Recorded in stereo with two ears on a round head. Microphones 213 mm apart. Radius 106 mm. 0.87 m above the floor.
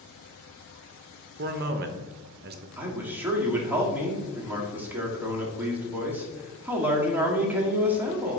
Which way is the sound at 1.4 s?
40° right (ahead or behind).